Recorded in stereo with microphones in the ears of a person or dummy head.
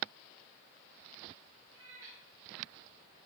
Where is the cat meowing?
80° right, 4.5 m.